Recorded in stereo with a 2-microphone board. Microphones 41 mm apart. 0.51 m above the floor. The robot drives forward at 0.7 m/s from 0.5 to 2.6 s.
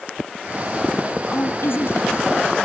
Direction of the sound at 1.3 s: 65° left (ahead or behind).